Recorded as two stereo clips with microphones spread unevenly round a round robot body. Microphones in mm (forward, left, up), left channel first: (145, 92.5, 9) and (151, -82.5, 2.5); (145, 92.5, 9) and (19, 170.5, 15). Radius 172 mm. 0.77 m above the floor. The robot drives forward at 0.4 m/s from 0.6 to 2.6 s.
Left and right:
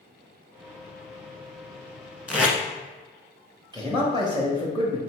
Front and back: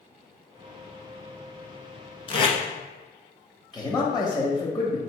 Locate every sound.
2.3 s tape being pulled: 10° right, 0.9 m
3.7 s a man speaking: 125° right, 0.7 m